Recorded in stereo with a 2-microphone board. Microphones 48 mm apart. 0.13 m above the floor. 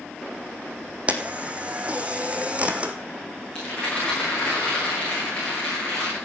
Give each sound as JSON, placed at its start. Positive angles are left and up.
{"t": 1.1, "sound": "a camera shutter", "side_deg": -25, "distance_m": 1.4}
{"t": 3.5, "sound": "a rattle", "side_deg": 20, "distance_m": 9.0}